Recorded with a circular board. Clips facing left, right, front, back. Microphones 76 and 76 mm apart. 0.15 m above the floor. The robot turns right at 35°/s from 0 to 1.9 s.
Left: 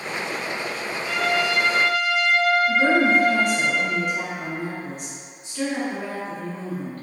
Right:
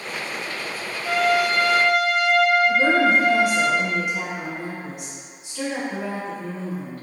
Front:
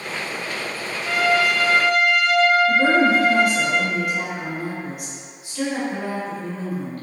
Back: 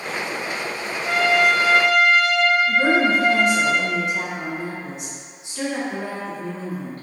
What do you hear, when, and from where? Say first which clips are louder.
1.1 s a trumpet: right 4 dB, back 1 dB; 130° right, 1.0 m; by 3.7 s 100° right, 1.0 m
2.7 s a woman speaking: even, front 2 dB; 165° right, 1.8 m